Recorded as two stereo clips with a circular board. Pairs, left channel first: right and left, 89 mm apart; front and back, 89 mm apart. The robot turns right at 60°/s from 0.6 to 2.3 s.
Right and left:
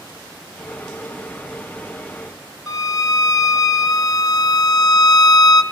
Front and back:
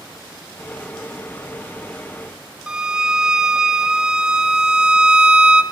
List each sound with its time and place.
2.7 s a violin: 105° right, 0.6 m